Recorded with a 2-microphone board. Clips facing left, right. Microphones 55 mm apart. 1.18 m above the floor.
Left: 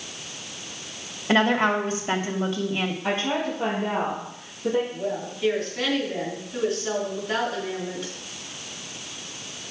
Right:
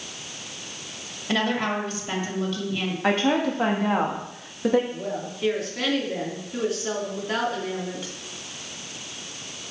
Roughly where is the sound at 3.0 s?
Right.